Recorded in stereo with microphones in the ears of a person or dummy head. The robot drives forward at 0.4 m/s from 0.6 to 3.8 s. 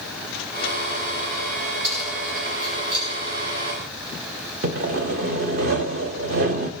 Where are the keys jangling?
50° right (ahead or behind), 6 m; by 3.1 s 55° right (ahead or behind), 5.5 m.